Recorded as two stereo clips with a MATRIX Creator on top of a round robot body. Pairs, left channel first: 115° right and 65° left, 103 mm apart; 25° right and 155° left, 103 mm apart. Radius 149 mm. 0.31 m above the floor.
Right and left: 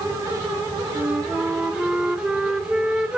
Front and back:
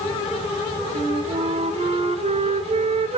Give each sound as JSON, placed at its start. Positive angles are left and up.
{"t": 0.9, "sound": "a flute", "azimuth_deg": 150, "distance_m": 0.6}